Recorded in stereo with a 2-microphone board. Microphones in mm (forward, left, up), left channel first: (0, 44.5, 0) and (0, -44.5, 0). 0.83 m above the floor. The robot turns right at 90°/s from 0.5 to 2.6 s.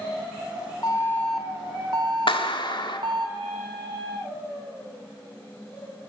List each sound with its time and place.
0.8 s an alarm: 130° left, 1.4 m; by 3.3 s 70° right, 1.4 m
2.3 s a clap: 80° left, 1.5 m; by 3.0 s 65° left (ahead or behind), 1.5 m